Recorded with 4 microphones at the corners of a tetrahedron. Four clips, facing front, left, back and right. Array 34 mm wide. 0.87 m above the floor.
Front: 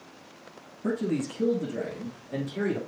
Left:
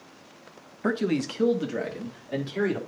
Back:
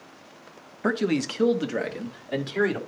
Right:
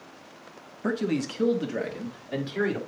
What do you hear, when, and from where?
0.8 s a man speaking: 165° left, 0.9 m; by 2.8 s 165° right, 2 m